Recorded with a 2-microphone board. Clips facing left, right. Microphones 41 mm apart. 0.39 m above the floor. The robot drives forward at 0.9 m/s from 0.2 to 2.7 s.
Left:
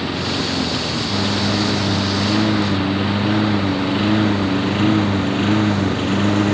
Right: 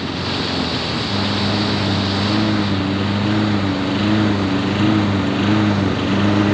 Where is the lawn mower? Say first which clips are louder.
Even; 10° left (ahead or behind); by 6.5 s 5° right (ahead or behind).